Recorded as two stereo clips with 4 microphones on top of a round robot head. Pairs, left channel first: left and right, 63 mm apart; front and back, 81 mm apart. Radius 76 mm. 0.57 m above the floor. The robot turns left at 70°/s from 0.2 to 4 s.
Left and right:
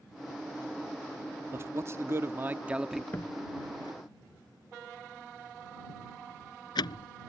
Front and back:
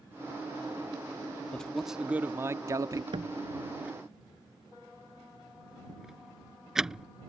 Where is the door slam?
160° left; by 7.1 s 100° left.